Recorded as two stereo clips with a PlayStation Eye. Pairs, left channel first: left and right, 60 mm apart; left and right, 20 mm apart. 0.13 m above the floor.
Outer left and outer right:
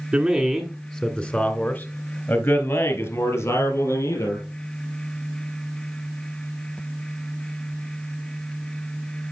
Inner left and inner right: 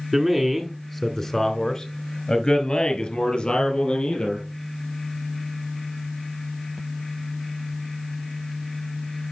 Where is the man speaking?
20° right (ahead or behind), 1.1 m; by 4.5 s 55° left (ahead or behind), 3 m.